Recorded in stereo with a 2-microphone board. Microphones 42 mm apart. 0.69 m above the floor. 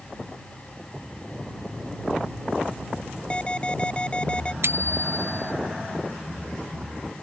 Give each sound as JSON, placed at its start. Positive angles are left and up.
{"t": 3.3, "sound": "an alarm", "side_deg": 30}
{"t": 4.6, "sound": "a bicycle bell", "side_deg": -75}